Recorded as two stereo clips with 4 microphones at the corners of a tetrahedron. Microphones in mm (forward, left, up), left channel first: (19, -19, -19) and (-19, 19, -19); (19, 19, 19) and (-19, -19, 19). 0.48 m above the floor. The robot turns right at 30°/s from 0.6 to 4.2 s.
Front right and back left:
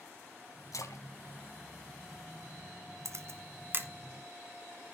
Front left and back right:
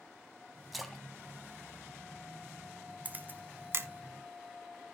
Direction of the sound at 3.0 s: 165° left.